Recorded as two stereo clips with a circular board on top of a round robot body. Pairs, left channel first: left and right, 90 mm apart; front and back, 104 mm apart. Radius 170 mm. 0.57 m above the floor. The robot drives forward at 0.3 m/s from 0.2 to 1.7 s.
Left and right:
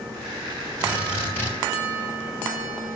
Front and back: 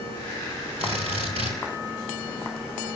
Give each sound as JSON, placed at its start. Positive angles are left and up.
{"t": 0.8, "sound": "a drill", "azimuth_deg": 160, "distance_m": 8.5}